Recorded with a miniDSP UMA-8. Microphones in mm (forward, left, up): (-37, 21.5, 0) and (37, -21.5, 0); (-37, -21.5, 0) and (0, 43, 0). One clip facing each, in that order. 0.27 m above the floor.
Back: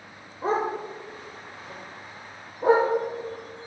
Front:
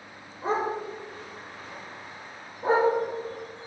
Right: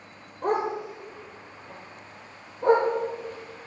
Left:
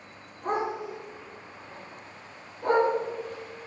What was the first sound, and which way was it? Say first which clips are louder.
A dog barking: back 2 dB, right 3 dB; 155° right.